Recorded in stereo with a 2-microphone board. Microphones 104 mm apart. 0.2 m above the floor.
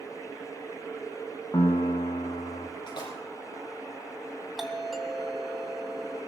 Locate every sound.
1.5 s a piano: 45° left (ahead or behind), 2 m
2.9 s a splash: 45° left (ahead or behind), 5 m
4.6 s a doorbell: centre (ahead or behind), 1.8 m